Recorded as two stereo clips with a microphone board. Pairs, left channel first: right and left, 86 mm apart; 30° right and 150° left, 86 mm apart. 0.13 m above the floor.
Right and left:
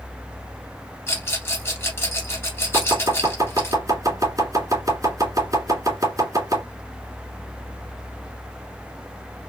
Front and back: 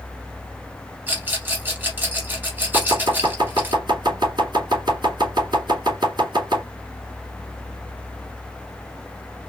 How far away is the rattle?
About 2.0 m.